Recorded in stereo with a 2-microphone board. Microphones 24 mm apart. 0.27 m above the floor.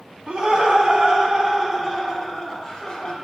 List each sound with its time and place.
0.3 s laughter: 45° right (ahead or behind), 1.5 m; by 3.2 s 30° left (ahead or behind), 1.2 m